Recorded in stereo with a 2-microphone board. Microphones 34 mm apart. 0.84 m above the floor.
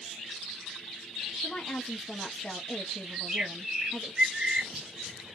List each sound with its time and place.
1.4 s a woman speaking: 35° left (ahead or behind), 0.8 m
3.1 s a bird: 30° right (ahead or behind), 1.7 m